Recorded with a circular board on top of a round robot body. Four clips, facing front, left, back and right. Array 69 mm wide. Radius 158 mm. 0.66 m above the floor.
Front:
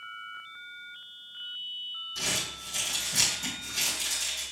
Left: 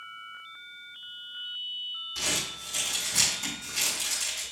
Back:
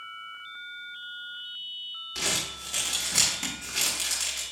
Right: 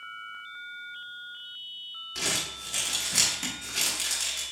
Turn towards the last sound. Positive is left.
turn(degrees=-145)